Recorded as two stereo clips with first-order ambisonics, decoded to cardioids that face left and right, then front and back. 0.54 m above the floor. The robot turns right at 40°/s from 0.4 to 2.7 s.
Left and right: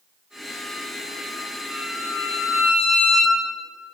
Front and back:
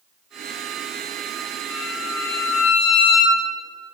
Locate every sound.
1.7 s a violin: 30° right, 3 m; by 3.4 s 10° left, 3 m